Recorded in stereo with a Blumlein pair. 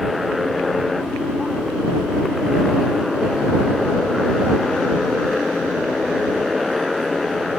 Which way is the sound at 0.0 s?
10° left.